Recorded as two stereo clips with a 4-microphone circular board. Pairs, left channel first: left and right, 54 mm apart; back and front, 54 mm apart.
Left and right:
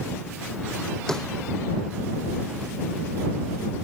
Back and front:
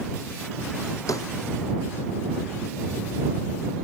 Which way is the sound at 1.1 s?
170° left.